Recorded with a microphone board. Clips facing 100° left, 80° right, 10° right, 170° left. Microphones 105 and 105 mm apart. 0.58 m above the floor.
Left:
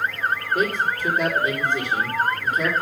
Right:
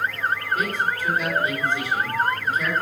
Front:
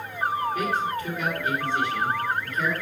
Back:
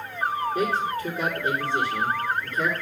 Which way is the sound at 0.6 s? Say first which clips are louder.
Left 2 dB, back 1 dB; 115° left.